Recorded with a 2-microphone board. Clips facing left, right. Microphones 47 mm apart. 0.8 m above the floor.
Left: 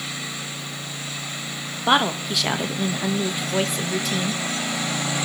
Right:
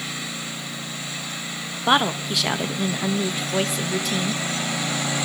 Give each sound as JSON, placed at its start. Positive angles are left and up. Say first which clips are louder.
{"t": 1.9, "sound": "a woman speaking", "louder": "even", "side_deg": 0, "distance_m": 0.8}